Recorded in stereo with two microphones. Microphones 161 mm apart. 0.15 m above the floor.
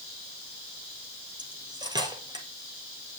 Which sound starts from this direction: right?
Cutlery clinking, at 1.4 s.